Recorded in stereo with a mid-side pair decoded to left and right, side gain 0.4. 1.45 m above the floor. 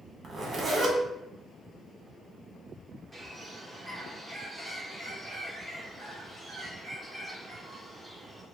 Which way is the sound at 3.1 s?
15° right.